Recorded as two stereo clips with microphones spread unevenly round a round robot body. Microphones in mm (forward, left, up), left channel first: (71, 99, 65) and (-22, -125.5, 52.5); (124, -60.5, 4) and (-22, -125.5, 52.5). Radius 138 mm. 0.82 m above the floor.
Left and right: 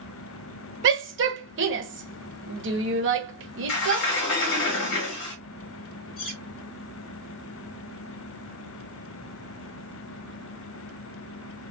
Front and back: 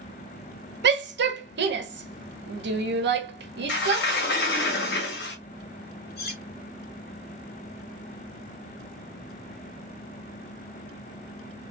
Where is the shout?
145° right, 1.1 m.